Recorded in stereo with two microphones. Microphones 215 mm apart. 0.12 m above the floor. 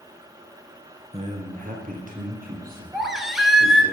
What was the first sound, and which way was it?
A man speaking, 30° right (ahead or behind).